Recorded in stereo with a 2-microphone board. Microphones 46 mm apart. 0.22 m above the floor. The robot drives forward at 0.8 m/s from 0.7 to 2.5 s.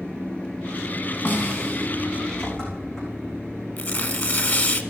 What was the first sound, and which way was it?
An engine running, 20° left (ahead or behind).